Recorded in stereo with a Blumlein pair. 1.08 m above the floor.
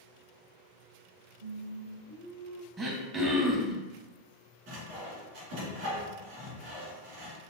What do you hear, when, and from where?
1.4 s singing: 55° right, 1.0 m
2.8 s throat clearing: 20° right, 0.8 m
4.7 s sawing: 45° right, 1.7 m